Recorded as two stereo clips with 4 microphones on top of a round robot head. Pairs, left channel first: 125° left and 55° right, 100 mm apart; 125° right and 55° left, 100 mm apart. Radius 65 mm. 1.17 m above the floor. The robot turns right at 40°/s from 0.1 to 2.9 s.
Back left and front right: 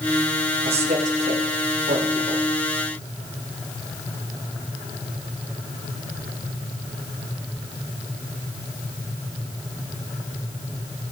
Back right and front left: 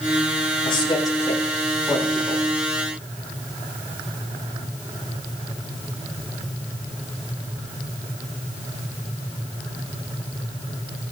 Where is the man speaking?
85° right, 8 m; by 2.4 s 10° right, 8 m.